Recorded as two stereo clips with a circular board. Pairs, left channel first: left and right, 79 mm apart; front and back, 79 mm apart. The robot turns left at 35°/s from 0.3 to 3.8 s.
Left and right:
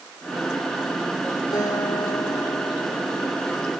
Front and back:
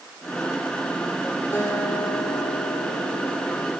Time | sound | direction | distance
1.5 | a guitar | 60° left | 9 m